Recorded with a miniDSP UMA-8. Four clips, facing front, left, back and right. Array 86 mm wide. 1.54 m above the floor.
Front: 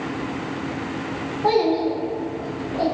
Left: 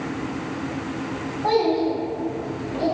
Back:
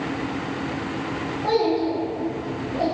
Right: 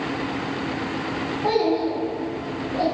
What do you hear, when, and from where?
1.4 s a child speaking: 10° right, 1.3 m; by 2.9 s 65° right, 1.0 m